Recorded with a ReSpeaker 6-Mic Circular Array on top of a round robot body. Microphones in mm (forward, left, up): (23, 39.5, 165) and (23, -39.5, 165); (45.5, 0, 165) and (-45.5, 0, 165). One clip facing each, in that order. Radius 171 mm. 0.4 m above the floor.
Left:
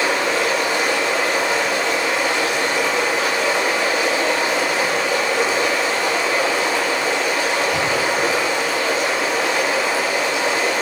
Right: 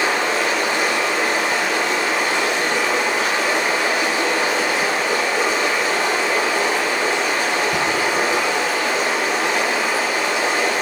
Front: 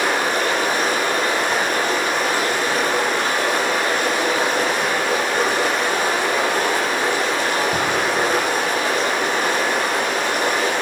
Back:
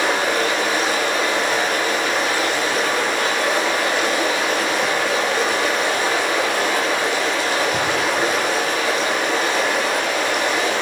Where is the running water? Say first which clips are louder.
Even, even; 50° right, 10 m.